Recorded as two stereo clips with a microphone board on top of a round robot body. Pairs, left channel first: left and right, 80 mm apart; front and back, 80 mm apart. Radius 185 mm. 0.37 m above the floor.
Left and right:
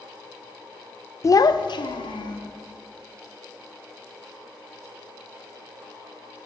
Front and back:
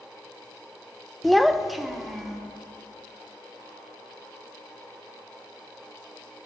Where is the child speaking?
85° left, 0.5 m; by 2.4 s 90° left, 1.6 m.